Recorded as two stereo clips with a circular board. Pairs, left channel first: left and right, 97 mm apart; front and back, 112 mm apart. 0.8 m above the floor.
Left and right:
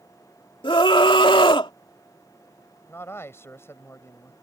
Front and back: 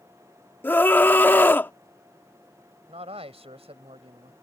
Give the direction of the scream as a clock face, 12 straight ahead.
10 o'clock.